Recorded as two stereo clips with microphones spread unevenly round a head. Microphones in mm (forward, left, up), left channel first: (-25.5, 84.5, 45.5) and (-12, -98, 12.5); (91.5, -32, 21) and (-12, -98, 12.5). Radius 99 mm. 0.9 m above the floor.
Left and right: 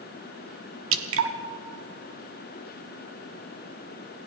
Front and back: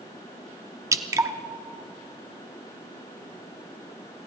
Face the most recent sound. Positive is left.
turn(degrees=-80)